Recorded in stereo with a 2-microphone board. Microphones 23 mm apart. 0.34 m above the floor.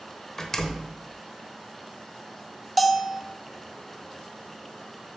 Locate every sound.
0.4 s a door slam: 15° left (ahead or behind), 0.8 m
2.8 s a bell: centre (ahead or behind), 0.6 m